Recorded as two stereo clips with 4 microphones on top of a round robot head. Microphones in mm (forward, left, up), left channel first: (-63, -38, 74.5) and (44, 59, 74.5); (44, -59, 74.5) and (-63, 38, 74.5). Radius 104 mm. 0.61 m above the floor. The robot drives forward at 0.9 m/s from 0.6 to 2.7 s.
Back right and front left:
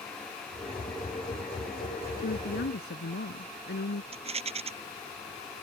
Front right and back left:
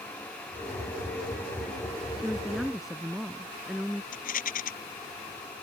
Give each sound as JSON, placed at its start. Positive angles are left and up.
{"t": 2.2, "sound": "a woman speaking", "azimuth_deg": -130}
{"t": 4.1, "sound": "a rattle", "azimuth_deg": -10}